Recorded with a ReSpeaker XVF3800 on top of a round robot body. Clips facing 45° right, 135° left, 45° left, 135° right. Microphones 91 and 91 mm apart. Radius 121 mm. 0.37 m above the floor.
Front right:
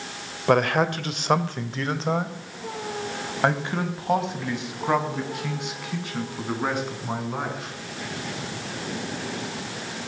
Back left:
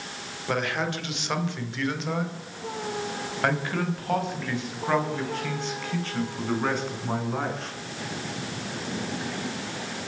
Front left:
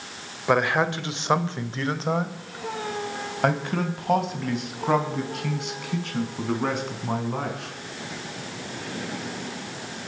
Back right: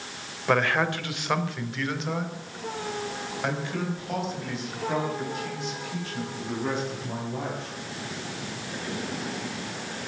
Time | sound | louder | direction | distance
0.5 | a man speaking | front right 8 dB, front left 2 dB | 30° right | 2.0 m